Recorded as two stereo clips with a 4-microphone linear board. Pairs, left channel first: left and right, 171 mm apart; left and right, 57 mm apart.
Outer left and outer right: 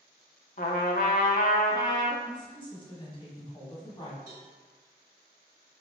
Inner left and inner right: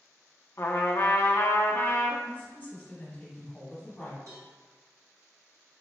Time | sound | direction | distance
0.6 | a trumpet | 55° left (ahead or behind) | 0.5 m
2.2 | a woman speaking | 30° left (ahead or behind) | 1.2 m
4.3 | a cowbell | 65° right (ahead or behind) | 1.4 m